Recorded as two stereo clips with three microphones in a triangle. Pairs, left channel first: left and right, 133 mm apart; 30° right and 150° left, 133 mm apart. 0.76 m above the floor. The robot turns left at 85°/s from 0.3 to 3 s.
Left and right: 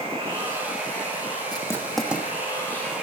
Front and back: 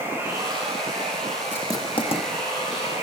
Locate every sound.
0.0 s running water: 135° right, 7.5 m; by 3.0 s 5° right, 7.5 m
1.5 s writing: 40° left, 1.3 m; by 2.3 s 20° right, 1.3 m